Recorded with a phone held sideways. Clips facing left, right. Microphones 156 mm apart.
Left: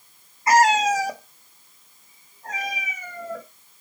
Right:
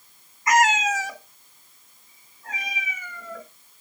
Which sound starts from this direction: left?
A cat meowing, at 0.5 s.